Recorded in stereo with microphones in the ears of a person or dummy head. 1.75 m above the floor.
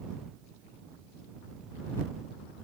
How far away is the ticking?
I don't hear ticking.